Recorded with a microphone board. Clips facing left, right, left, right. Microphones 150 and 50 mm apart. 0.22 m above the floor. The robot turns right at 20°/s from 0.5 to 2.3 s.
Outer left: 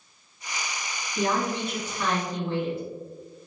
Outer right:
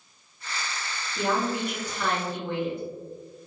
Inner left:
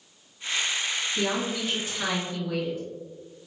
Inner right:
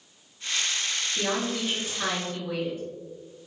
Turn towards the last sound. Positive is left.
turn(degrees=-20)  # may be behind; listen again after turning